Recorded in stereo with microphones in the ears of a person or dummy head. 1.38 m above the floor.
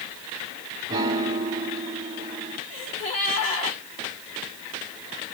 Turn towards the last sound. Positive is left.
turn(degrees=35)  # may be behind; listen again after turning